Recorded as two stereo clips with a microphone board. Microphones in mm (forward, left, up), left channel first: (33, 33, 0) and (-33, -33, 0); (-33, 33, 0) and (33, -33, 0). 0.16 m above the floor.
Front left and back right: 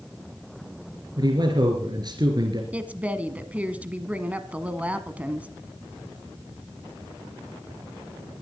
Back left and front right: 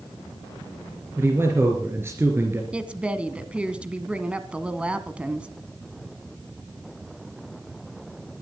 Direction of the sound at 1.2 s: 105° right.